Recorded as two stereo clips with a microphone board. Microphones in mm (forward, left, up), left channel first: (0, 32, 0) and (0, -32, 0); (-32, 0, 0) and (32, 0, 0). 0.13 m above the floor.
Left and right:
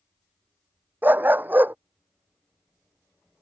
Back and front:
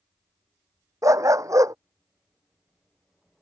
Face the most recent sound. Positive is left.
turn(degrees=-30)